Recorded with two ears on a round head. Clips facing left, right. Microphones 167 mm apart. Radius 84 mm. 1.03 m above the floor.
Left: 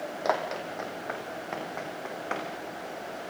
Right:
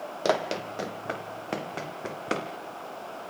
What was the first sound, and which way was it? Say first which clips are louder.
Running footsteps: right 3 dB; 35° right (ahead or behind).